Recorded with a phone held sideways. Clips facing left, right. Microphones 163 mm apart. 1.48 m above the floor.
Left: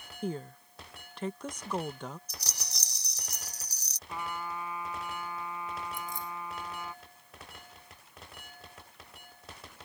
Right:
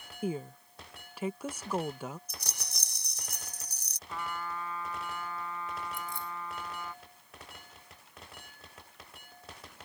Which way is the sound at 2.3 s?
50° right (ahead or behind).